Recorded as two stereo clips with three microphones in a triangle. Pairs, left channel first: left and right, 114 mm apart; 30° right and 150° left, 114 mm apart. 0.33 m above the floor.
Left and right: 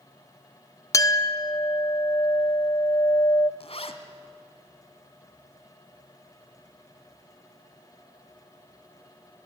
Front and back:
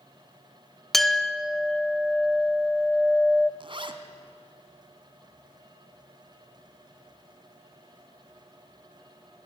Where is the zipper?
110° left, 1.5 m.